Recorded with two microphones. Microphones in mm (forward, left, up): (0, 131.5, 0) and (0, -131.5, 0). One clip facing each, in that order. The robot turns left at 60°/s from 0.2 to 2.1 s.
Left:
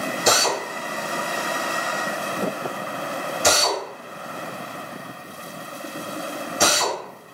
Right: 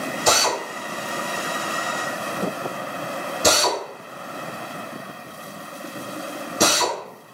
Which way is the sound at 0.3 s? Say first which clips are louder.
Left 1 dB; 20° left (ahead or behind).